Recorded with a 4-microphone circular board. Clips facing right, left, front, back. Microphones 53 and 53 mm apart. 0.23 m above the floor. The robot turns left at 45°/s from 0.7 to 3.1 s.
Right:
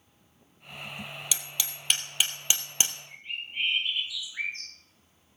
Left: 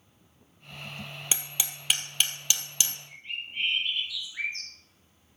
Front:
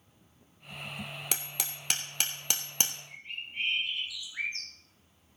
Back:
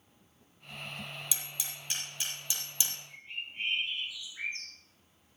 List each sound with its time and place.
1.3 s hammering: 30° left, 2 m; by 3.0 s 45° right, 2 m
3.1 s a bird: 5° right, 4.5 m